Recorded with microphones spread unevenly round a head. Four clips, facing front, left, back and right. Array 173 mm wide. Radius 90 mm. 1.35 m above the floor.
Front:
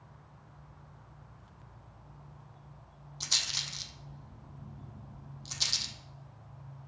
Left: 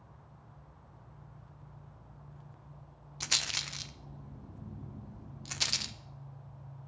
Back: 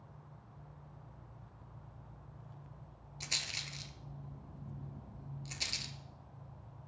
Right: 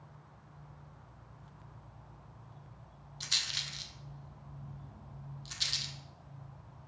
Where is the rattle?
85° left, 0.5 m.